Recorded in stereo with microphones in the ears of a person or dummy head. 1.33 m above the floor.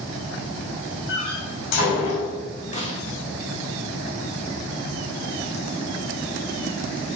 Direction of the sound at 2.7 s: 35° left (ahead or behind).